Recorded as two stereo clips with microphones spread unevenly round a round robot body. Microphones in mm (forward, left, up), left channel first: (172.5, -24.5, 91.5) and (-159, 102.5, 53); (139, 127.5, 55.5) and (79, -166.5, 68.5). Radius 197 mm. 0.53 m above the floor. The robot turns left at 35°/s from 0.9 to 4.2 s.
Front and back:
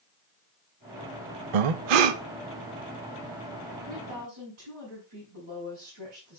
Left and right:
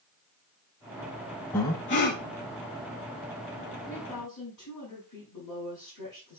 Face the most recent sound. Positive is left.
turn(degrees=135)